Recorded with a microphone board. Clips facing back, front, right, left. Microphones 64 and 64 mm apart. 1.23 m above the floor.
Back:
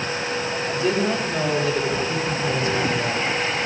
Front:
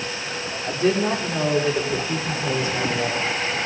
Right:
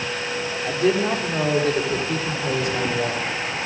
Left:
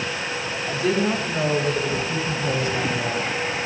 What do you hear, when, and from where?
0.6 s a woman speaking: 55° right, 3.5 m; by 3.2 s 70° right, 4.5 m